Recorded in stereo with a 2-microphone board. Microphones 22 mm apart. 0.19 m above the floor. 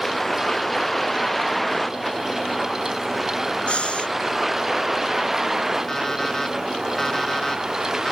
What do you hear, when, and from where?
0.0 s a vehicle: 10° left (ahead or behind); by 8.1 s 30° right (ahead or behind)
3.7 s breathing: 60° left (ahead or behind)
5.9 s an alarm clock: 20° left (ahead or behind)